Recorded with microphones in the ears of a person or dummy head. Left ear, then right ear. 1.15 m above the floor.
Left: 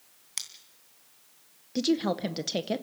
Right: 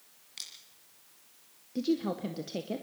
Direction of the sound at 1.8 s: 40° left (ahead or behind).